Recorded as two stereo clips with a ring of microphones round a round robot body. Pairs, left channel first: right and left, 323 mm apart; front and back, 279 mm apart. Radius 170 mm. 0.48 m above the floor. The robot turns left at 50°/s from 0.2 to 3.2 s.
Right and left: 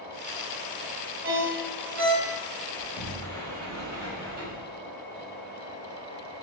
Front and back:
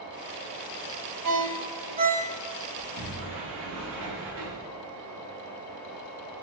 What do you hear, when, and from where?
1.2 s a ringtone: 150° left, 1.6 m; by 2.3 s 95° left, 1.6 m
2.8 s a sliding door: 170° left, 1.7 m; by 4.7 s 150° left, 1.7 m